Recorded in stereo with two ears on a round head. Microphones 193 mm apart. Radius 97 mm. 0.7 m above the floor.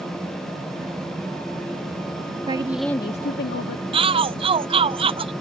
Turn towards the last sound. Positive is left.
turn(degrees=-25)  # may be behind; listen again after turning